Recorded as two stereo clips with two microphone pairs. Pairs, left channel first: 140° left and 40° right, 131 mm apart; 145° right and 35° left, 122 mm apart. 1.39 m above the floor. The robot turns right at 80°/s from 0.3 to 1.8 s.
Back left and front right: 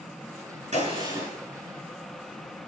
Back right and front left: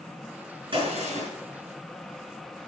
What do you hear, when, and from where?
0.7 s a gunshot: 10° right, 5.5 m; by 1.3 s 35° left, 5.5 m